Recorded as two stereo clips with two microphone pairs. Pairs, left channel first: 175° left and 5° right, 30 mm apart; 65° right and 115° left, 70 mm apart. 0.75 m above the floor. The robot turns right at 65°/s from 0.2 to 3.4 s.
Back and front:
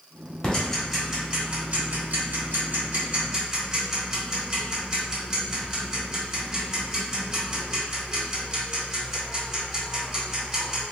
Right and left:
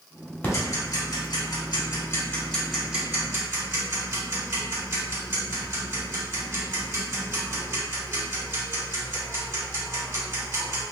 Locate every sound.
0.4 s ticking: 125° right, 1.4 m; by 10.8 s 65° left, 1.4 m